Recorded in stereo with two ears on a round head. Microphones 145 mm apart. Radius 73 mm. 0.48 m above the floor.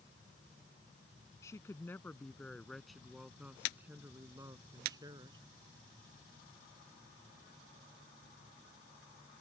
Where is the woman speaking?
20° left (ahead or behind); by 5.4 s 25° right (ahead or behind).